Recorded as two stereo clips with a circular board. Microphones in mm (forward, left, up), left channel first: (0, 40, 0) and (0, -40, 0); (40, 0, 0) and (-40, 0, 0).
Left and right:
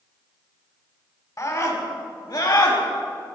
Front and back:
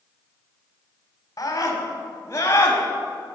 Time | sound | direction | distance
1.4 | a scream | 45° left | 3.5 m